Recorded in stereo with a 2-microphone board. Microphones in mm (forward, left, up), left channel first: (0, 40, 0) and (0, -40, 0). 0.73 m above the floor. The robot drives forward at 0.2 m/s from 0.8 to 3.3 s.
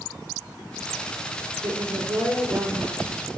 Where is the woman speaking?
60° right (ahead or behind), 1.9 m.